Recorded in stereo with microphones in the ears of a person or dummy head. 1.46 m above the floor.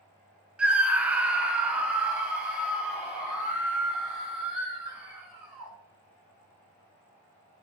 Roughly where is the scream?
Centre.